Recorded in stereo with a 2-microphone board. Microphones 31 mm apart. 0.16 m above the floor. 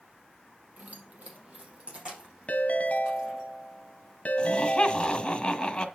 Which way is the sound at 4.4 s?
35° left (ahead or behind).